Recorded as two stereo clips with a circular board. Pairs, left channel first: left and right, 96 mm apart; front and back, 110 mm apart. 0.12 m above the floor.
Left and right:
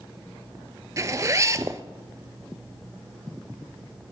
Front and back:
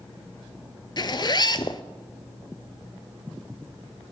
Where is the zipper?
40° right, 0.7 m.